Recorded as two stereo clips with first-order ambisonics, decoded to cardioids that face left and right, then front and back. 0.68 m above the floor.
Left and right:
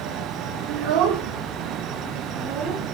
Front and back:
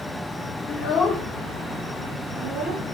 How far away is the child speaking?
About 0.9 m.